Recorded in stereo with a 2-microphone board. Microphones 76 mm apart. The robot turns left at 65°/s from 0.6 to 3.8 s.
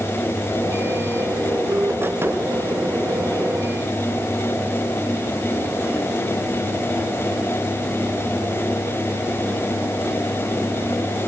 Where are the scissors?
No scissors in this recording.